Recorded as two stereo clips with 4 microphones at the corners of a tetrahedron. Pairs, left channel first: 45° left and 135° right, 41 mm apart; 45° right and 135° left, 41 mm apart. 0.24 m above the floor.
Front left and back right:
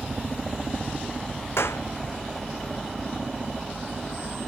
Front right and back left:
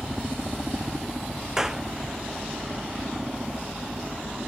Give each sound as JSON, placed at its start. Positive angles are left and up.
{"t": 0.0, "sound": "a helicopter", "azimuth_deg": 180}
{"t": 1.6, "sound": "a clap", "azimuth_deg": 55}